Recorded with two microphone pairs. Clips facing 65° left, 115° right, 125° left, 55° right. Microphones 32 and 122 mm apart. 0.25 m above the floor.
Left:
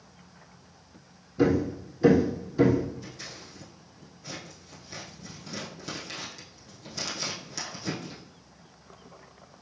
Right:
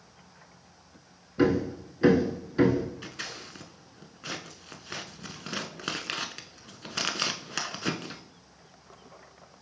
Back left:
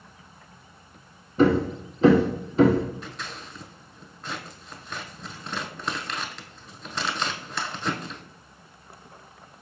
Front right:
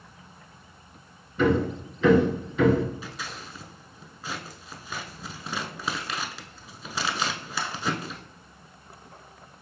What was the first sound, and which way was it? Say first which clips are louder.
Hammering: left 1 dB, back left 3 dB; straight behind.